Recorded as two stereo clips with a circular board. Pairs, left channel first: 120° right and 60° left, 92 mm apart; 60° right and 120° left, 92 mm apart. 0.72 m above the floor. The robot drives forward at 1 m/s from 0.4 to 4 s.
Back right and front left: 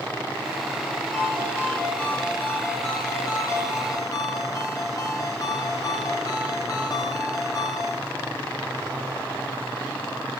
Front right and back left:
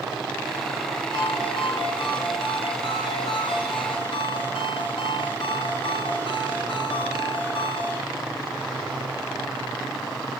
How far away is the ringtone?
About 5 m.